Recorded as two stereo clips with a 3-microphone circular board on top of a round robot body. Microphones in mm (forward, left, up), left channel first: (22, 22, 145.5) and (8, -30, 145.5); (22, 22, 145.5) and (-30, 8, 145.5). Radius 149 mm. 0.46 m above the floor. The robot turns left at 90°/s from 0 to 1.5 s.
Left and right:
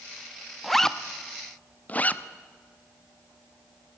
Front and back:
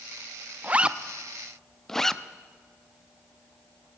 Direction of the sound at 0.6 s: 165° left.